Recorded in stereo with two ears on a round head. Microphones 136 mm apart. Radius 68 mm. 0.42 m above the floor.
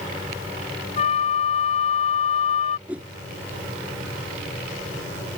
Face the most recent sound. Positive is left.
turn(degrees=-10)  # may be behind; listen again after turning